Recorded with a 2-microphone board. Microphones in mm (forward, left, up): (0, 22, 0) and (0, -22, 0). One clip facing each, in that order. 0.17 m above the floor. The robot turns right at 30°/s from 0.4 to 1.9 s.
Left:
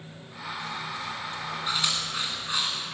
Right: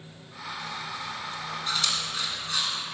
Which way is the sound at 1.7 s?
15° left (ahead or behind).